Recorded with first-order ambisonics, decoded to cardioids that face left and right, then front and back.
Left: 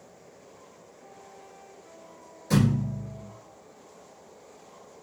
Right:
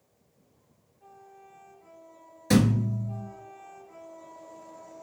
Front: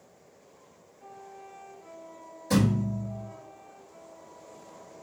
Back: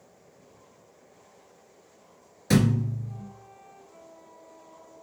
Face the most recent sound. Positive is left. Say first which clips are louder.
# right 2 dB, back 2 dB
turn(degrees=-140)